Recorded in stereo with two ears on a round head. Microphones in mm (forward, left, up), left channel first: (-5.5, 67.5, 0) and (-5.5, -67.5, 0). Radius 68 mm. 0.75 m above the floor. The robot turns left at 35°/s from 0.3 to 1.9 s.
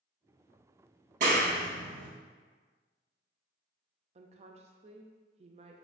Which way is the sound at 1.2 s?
50° right (ahead or behind).